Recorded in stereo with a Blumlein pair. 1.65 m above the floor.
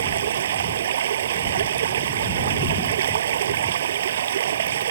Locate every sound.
0.0 s running water: 60° right